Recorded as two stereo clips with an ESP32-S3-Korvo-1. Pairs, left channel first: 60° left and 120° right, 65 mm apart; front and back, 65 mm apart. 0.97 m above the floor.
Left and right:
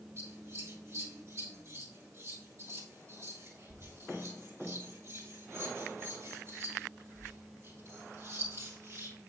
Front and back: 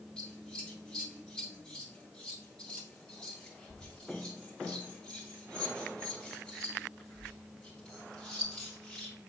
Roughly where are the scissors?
Right.